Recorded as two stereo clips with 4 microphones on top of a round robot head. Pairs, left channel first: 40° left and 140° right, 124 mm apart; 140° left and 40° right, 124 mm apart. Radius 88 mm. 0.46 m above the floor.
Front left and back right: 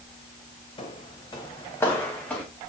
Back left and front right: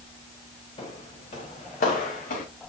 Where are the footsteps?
90° left, 2 m; by 2.5 s 120° left, 2.5 m.